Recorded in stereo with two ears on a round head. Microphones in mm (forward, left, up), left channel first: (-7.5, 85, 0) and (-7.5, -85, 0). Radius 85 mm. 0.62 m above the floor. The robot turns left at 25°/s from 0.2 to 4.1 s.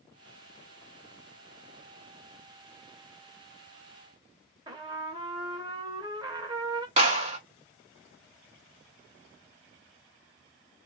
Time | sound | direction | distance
4.7 | a trumpet | 20° right (ahead or behind) | 0.7 m
7.0 | a clap | 30° right (ahead or behind) | 1.4 m